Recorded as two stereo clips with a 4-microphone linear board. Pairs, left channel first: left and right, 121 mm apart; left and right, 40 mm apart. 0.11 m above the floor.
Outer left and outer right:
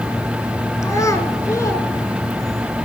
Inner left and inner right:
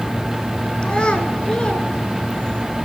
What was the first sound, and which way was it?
A child speaking, 25° left (ahead or behind).